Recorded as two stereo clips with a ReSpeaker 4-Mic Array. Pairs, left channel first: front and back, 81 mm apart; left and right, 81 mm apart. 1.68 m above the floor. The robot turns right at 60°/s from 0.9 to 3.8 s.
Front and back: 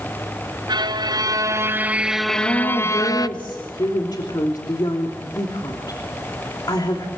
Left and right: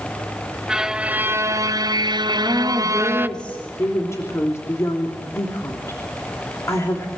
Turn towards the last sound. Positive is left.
turn(degrees=35)